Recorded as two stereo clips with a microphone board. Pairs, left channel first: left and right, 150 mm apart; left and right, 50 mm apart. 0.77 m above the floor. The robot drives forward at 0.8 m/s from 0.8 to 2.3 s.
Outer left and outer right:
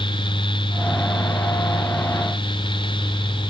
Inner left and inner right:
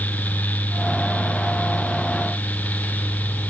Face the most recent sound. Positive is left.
No sound to turn to.